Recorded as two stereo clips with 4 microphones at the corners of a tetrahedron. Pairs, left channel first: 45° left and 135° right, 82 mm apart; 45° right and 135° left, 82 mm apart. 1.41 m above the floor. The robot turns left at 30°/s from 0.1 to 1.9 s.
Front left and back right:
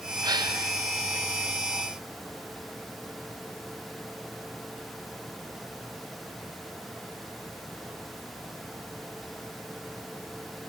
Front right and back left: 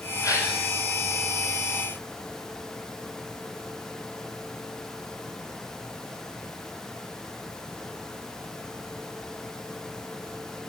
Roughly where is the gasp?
Right.